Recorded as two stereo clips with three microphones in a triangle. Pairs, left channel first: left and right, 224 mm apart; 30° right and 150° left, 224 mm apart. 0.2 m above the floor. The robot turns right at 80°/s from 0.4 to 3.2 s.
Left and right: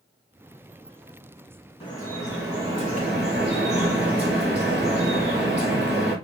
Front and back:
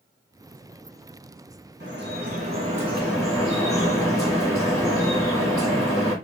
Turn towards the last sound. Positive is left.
turn(degrees=-100)